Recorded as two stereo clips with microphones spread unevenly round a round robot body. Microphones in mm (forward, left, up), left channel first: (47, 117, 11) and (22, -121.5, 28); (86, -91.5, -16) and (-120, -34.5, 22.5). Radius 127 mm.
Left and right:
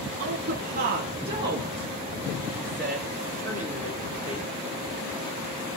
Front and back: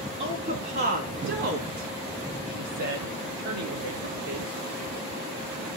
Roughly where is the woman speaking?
Behind right.